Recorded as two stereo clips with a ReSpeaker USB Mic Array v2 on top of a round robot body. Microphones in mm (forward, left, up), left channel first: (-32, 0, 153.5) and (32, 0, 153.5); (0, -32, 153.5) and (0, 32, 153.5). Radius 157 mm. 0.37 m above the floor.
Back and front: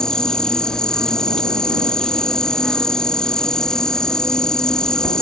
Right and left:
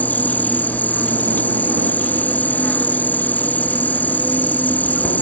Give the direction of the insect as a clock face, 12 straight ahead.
4 o'clock.